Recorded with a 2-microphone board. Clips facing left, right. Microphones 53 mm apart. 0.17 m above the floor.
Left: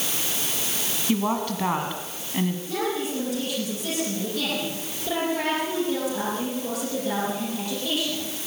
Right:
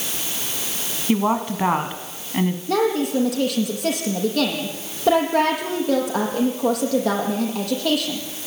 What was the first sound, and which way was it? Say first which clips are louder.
A woman speaking: right 5 dB; 25° right (ahead or behind).